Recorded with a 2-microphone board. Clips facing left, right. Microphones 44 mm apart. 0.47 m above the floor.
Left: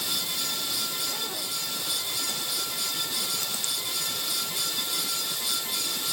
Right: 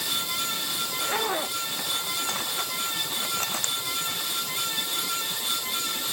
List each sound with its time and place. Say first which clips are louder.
0.8 s a zipper: right 6 dB; 55° right (ahead or behind)